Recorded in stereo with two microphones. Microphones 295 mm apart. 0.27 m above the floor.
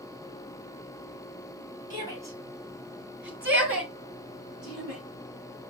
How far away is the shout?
About 1.5 m.